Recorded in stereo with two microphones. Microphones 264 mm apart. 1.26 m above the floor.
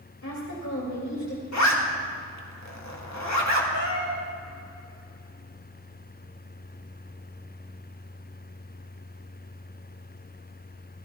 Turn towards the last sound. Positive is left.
turn(degrees=-70)  # may be behind; listen again after turning